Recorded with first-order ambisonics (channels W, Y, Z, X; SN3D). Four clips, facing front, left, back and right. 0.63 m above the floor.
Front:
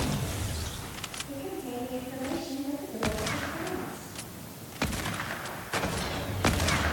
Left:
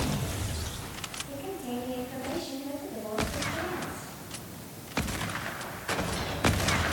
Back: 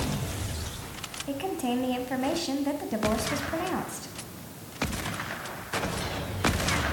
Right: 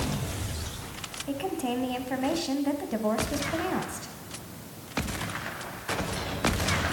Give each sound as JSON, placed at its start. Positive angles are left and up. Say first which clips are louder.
{"t": 1.3, "sound": "a woman speaking", "louder": "right 9 dB, back 10 dB", "azimuth_deg": -135, "distance_m": 3.5}